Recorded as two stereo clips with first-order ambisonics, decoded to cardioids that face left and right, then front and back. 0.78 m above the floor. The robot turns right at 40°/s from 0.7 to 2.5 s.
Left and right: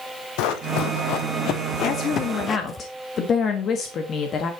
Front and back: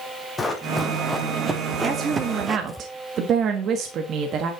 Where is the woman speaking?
110° left, 1.4 m; by 4.5 s 140° left, 1.4 m.